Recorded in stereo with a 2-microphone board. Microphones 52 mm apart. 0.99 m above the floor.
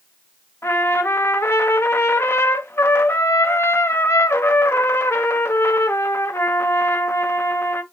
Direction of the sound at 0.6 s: 55° left (ahead or behind).